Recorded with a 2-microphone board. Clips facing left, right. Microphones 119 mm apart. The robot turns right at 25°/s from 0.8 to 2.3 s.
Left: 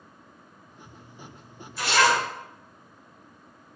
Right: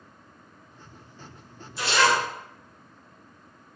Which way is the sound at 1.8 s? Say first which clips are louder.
Even; 25° right (ahead or behind).